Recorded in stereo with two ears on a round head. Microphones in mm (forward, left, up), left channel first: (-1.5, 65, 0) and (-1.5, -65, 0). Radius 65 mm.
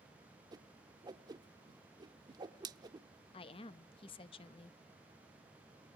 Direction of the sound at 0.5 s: 30° right (ahead or behind).